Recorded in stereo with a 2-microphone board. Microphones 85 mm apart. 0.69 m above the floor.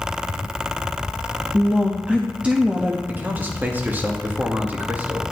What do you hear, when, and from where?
1.5 s a woman speaking: 15° right (ahead or behind), 0.6 m
3.1 s a man speaking: 20° right (ahead or behind), 0.9 m